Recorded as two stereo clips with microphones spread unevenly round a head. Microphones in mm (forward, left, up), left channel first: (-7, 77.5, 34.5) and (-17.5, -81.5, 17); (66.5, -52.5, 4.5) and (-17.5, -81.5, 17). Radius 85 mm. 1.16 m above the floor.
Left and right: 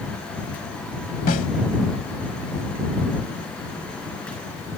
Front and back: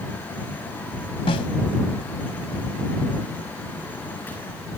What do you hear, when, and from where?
1.3 s a snare drum: 55° left